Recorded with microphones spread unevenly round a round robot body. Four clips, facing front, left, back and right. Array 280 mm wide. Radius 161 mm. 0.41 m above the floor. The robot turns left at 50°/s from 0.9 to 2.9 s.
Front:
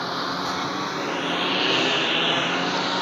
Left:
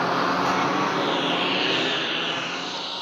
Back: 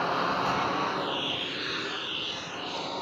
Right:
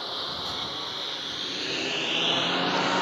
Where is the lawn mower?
75° left; by 3.0 s 35° right.